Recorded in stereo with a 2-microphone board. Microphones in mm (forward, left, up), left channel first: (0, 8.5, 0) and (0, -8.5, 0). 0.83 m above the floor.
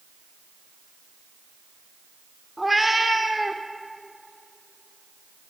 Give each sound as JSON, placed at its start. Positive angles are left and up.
{"t": 2.6, "sound": "a cat meowing", "side_deg": -10, "distance_m": 0.8}